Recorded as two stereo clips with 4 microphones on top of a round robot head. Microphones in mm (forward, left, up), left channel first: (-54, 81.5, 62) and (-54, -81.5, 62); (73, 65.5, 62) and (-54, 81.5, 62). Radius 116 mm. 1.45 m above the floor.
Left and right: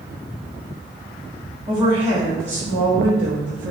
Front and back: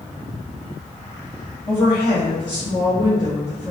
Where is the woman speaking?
25° right, 1.1 m; by 3.7 s 95° right, 0.6 m.